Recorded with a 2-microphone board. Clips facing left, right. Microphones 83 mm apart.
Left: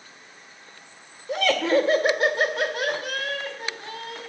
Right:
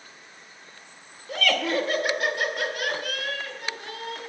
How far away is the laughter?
About 1.4 m.